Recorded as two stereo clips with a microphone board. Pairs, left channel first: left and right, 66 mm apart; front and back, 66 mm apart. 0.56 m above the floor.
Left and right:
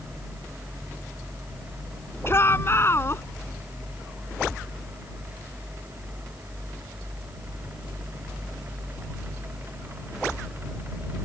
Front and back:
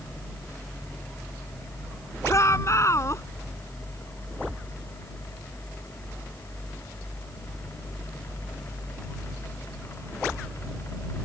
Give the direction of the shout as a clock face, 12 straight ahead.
11 o'clock.